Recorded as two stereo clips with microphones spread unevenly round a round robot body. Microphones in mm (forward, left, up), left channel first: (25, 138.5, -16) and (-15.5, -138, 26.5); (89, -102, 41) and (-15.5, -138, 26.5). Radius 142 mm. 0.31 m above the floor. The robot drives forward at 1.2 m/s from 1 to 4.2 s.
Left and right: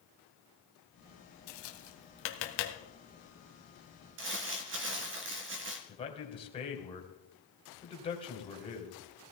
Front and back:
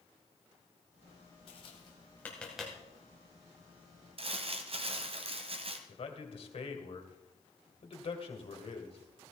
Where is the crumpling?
150° right, 1.7 m.